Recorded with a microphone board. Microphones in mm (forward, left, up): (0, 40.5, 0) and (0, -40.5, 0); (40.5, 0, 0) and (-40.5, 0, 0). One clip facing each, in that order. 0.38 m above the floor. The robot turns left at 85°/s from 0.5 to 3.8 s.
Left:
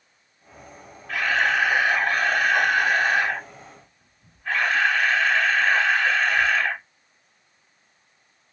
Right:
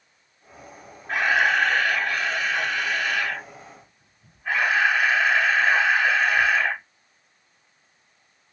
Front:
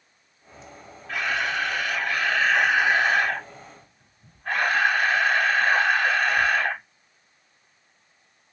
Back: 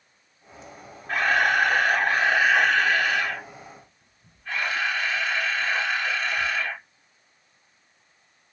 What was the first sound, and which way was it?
A camera shutter, 145° right.